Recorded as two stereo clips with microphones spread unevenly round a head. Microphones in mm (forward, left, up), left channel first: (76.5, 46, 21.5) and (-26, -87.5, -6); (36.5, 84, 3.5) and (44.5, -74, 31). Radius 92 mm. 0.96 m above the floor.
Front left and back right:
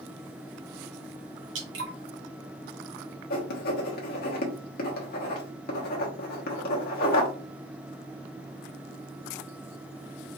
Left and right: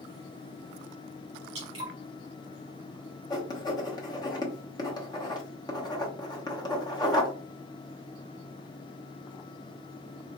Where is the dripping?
135° right, 1.4 m.